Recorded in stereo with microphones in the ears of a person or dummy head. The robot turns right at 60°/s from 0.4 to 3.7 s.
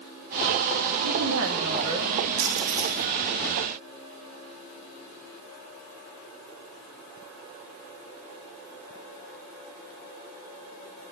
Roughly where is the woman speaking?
Right.